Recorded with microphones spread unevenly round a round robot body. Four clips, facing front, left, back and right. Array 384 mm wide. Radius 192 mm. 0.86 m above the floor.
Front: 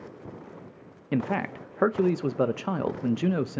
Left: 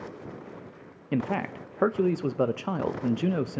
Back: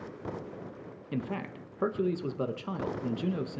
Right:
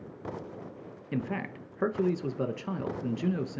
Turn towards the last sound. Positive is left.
turn(degrees=20)